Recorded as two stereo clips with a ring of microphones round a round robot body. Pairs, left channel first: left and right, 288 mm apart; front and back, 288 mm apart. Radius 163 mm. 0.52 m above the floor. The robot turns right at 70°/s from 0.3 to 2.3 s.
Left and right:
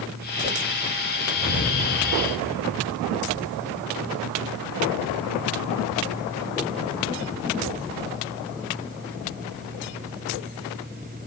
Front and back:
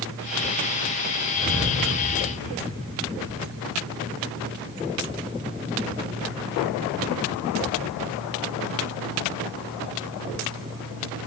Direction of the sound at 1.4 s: 125° left.